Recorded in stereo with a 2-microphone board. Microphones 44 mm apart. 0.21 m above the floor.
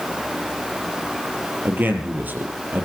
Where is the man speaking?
50° right (ahead or behind), 4 m.